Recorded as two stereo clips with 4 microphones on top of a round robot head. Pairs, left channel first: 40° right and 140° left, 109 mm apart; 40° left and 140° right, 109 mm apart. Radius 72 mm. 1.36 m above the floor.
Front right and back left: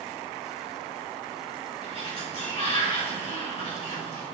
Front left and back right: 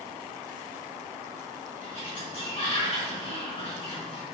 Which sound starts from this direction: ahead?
A sliding door, at 1.8 s.